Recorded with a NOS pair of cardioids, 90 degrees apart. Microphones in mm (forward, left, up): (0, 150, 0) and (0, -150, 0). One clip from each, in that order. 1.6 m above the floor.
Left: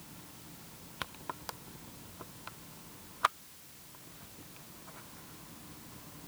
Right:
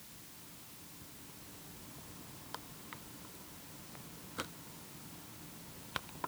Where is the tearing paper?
No tearing paper in this recording.